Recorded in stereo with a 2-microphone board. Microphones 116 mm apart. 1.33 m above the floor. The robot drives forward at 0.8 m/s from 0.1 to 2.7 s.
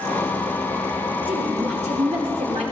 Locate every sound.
1.3 s a woman speaking: 75° right (ahead or behind), 3 m; by 2.6 s 80° right, 3 m